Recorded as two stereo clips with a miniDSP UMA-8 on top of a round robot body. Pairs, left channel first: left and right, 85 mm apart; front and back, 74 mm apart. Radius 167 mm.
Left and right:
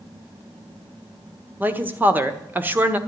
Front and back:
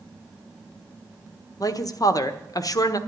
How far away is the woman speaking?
About 1.4 m.